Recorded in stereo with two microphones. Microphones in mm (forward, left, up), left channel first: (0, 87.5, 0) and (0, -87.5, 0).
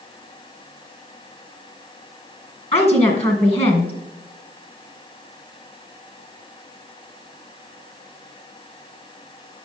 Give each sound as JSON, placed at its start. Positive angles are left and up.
{"t": 2.7, "sound": "a woman speaking", "side_deg": 35, "distance_m": 2.5}